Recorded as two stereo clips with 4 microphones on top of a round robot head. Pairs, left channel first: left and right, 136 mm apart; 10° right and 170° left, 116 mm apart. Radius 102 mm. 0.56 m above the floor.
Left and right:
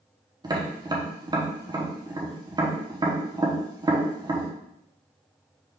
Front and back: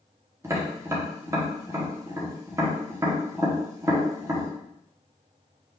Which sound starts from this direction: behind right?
Tapping, at 0.4 s.